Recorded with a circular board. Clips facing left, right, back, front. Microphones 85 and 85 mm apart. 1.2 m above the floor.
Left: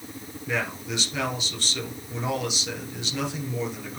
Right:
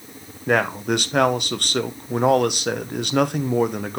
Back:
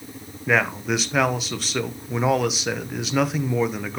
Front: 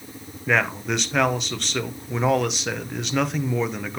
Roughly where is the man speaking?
Right.